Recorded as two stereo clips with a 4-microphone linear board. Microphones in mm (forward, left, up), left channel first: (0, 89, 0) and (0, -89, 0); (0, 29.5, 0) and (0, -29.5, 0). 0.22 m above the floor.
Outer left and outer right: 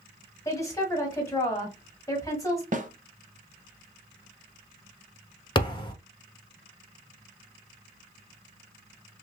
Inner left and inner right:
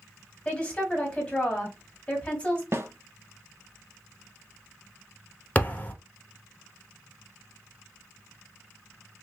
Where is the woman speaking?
20° left (ahead or behind), 1.5 m.